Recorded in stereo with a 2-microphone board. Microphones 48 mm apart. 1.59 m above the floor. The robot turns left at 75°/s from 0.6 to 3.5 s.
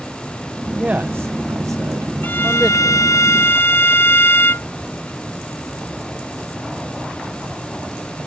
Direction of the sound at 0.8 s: 25° right (ahead or behind).